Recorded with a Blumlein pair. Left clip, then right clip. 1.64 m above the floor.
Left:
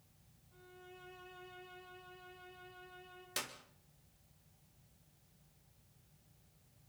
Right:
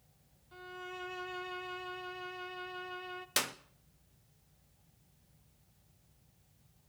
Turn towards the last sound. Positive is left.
turn(degrees=-25)